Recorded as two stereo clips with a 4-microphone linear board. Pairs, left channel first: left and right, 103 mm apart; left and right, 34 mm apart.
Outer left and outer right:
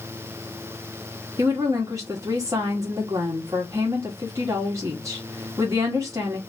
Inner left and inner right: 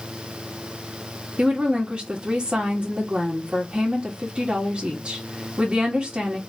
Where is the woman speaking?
30° right (ahead or behind), 1.7 m.